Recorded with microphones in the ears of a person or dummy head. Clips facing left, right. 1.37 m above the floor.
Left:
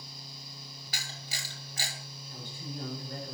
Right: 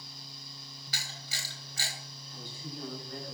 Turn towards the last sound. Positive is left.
turn(degrees=50)  # may be behind; listen again after turning